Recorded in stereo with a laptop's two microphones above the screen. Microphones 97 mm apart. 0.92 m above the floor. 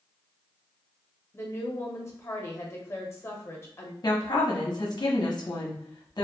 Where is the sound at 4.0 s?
45° left (ahead or behind), 0.7 m.